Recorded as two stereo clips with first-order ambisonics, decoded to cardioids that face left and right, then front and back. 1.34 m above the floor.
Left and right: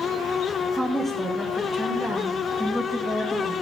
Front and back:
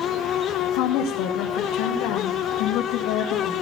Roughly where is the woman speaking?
Ahead.